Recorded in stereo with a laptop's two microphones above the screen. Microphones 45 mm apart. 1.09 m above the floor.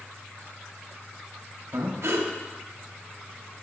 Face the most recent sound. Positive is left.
turn(degrees=-70)  # may be behind; listen again after turning